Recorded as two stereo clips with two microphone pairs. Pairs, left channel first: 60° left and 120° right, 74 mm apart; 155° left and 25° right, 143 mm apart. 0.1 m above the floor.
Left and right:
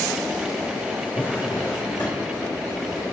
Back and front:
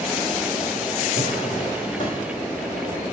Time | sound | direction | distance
1.2 | a drawer | 130° left | 3.5 m